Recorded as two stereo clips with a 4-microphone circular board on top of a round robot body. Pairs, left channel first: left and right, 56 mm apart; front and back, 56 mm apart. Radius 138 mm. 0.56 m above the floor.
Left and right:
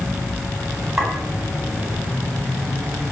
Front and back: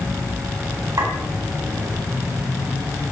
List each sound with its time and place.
1.0 s a clink: 175° right, 3.5 m